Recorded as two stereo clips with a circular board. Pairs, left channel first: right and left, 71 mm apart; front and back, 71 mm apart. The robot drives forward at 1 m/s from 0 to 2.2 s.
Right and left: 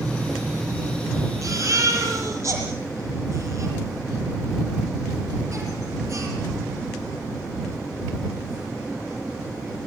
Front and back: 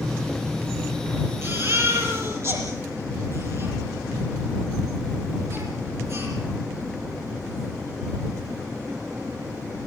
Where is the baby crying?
130° left, 7 m; by 6.3 s 135° left, 7.5 m.